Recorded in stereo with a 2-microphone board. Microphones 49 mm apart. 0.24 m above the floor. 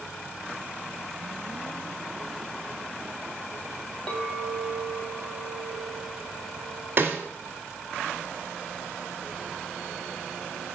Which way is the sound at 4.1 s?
20° left (ahead or behind).